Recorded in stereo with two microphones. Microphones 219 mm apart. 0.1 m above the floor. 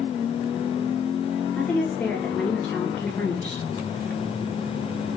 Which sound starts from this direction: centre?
A woman speaking, at 1.6 s.